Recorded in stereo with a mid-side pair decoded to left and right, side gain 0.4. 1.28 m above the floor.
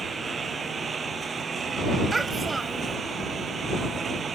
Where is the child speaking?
25° right.